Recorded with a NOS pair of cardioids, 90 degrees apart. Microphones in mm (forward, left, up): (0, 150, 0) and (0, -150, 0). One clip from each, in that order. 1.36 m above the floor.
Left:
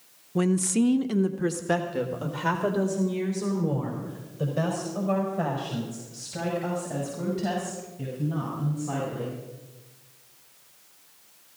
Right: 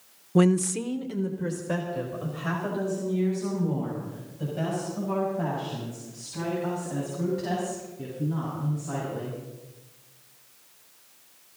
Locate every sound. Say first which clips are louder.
0.3 s a woman speaking: right 2 dB; 30° right, 0.5 m; by 9.4 s 70° left, 11 m